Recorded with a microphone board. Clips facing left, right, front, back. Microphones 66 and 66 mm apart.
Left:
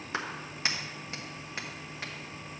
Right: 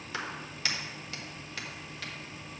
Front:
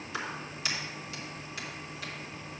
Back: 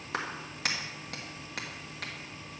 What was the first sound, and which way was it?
A clap, 150° left.